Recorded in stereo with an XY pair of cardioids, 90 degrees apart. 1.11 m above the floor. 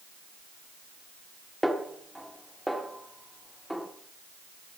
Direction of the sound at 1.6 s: 5° right.